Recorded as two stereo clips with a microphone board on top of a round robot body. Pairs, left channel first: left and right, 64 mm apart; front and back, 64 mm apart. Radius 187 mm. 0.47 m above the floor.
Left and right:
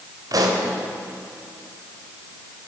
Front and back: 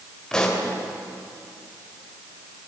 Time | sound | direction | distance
0.3 | a pop | 80° right | 3.5 m